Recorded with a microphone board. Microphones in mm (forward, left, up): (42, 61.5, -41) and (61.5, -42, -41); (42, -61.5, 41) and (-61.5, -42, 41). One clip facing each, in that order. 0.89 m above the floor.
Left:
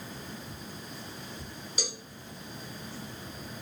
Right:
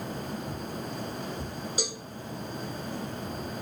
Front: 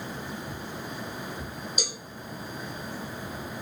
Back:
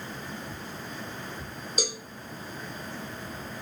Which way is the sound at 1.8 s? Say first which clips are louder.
Right 2 dB, back 9 dB; 145° right.